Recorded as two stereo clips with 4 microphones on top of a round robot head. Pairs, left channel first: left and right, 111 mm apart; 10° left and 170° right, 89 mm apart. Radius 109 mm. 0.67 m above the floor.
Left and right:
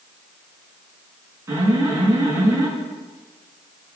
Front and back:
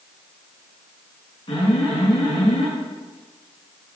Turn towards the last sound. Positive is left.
turn(degrees=-25)